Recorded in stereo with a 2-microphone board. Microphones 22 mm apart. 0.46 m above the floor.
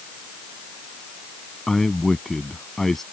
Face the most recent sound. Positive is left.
turn(degrees=15)  # may be behind; listen again after turning